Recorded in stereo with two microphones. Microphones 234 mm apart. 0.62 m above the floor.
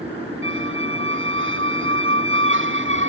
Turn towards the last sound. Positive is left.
turn(degrees=-55)  # may be behind; listen again after turning